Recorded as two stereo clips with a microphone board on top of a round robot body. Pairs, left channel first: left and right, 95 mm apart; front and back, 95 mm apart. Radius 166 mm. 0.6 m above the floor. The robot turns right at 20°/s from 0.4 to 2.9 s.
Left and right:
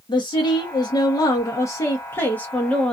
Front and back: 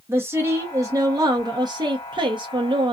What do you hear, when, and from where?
0.1 s a woman speaking: 120° left, 0.9 m; by 2.9 s 170° left, 0.9 m